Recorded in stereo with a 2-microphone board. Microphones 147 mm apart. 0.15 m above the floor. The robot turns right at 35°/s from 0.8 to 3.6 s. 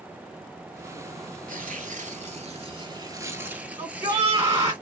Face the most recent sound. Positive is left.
turn(degrees=-20)  # may be behind; listen again after turning